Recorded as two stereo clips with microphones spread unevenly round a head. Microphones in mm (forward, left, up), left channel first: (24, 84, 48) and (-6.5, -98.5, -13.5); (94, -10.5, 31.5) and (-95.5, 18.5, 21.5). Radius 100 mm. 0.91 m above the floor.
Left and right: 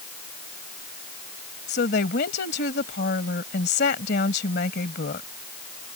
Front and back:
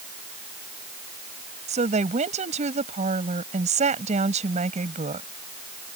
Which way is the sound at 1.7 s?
120° left.